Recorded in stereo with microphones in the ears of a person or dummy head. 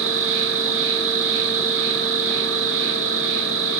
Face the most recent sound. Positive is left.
turn(degrees=-60)  # may be behind; listen again after turning